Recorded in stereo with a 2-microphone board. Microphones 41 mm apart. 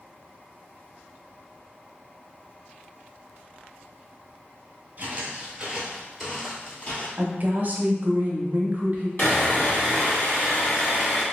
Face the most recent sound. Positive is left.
turn(degrees=50)  # may be behind; listen again after turning